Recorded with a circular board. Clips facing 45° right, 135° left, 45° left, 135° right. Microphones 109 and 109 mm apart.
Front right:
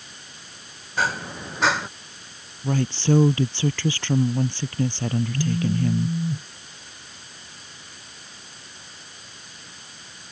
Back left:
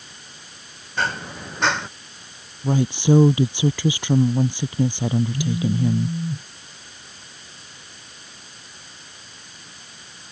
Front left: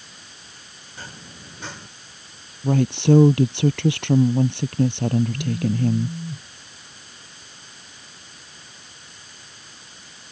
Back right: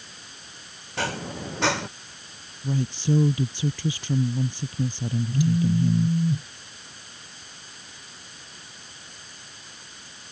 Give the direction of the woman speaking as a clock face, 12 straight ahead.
10 o'clock.